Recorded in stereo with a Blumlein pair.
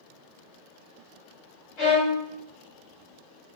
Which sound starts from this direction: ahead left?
A violin, at 1.8 s.